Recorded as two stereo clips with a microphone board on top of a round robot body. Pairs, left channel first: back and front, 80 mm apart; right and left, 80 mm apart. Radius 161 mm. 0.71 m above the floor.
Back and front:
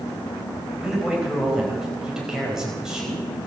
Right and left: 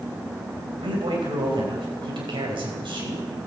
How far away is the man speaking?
About 4.5 m.